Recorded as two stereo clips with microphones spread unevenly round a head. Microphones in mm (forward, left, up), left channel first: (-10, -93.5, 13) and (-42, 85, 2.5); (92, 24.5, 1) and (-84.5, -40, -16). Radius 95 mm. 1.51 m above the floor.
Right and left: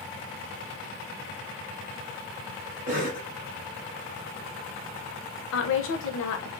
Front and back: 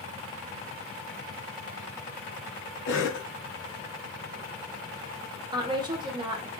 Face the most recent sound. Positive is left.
turn(degrees=-90)